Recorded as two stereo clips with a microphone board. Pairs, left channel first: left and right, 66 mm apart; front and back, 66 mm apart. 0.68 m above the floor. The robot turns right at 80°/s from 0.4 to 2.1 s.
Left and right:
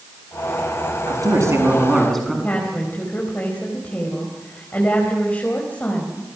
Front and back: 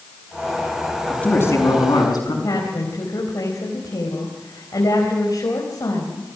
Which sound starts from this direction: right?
A man speaking, at 1.1 s.